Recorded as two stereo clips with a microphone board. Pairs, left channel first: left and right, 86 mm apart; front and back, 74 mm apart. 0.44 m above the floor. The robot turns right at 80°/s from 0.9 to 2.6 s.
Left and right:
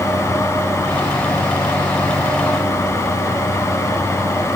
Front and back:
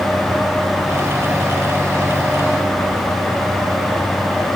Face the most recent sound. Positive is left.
No sound to turn to.